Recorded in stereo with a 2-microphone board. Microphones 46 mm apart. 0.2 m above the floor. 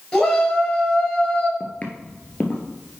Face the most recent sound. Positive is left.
turn(degrees=30)  # may be behind; listen again after turning